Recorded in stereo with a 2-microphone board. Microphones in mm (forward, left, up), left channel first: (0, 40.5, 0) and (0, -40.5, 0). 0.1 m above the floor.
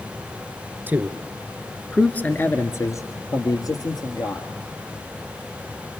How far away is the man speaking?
About 1.3 m.